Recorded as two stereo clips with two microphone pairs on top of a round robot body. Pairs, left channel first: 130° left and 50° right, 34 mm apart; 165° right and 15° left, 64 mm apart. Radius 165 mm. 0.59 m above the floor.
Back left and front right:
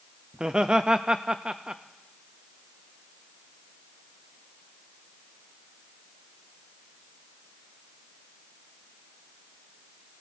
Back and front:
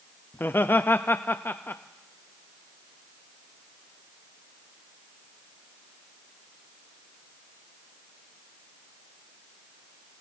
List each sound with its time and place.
0.3 s laughter: 100° right, 0.7 m